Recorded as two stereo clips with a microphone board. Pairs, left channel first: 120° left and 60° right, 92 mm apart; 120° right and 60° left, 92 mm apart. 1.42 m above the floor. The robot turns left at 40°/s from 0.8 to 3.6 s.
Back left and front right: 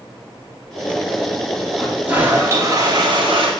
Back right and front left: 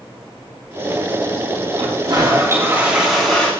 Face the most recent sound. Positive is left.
turn(degrees=-45)